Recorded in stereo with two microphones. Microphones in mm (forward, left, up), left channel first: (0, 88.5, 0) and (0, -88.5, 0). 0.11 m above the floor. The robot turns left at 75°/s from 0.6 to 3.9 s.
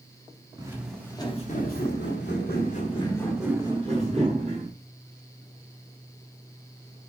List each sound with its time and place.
0.6 s footsteps: 20° right (ahead or behind), 2.5 m; by 4.7 s 40° right (ahead or behind), 5.5 m